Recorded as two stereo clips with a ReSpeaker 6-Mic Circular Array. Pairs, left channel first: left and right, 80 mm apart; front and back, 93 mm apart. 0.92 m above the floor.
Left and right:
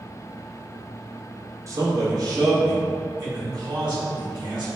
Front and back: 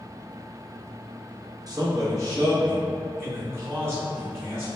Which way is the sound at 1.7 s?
135° right.